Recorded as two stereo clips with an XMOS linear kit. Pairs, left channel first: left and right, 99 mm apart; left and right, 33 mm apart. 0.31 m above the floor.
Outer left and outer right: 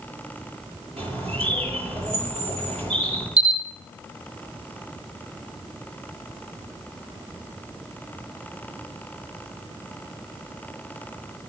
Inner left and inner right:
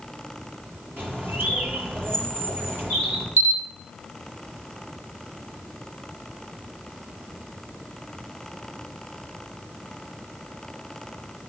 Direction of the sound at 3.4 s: 85° right.